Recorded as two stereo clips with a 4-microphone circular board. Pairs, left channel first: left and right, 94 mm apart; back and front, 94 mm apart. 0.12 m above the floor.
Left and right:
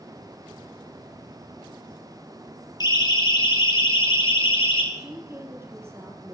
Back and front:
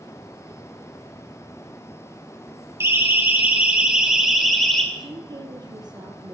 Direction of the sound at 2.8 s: 55° left.